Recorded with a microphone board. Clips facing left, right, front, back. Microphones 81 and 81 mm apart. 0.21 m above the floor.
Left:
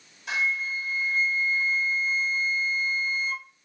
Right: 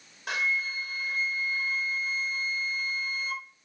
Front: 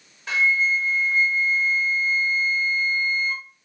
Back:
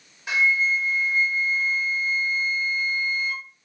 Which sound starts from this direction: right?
A flute, at 0.3 s.